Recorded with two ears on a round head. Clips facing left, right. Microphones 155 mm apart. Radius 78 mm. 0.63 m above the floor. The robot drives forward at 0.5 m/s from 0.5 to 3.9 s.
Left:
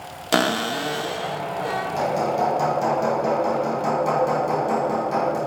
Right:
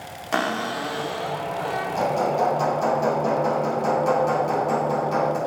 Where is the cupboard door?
45° left (ahead or behind), 0.6 m; by 1.9 s 20° left (ahead or behind), 1.1 m.